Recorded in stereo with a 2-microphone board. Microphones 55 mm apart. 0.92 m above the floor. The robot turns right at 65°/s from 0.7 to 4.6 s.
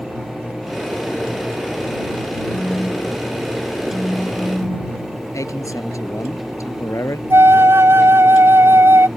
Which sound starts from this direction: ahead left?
A phone buzzing, at 2.5 s.